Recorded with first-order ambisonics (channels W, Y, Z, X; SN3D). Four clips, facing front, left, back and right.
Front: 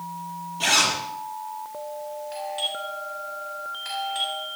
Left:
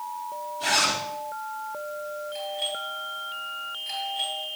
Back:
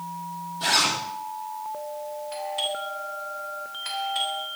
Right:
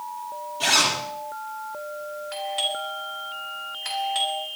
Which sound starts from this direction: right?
A doorbell, at 2.3 s.